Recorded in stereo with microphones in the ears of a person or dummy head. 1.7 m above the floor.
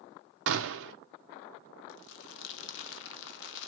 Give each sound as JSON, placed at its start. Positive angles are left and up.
{"t": 0.5, "sound": "a gunshot", "side_deg": -75, "distance_m": 0.6}
{"t": 1.9, "sound": "crumpling", "side_deg": 80, "distance_m": 0.9}